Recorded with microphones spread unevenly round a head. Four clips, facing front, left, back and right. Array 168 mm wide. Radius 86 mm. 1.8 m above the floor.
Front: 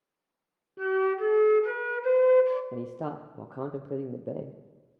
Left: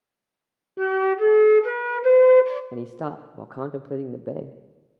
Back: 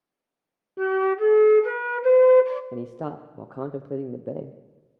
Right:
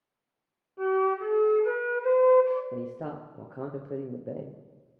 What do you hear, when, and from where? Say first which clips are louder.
0.8 s a flute: left 5 dB, back 4 dB; 95° left, 0.9 m
2.7 s a man speaking: left 4 dB, back 2 dB; 35° left, 0.8 m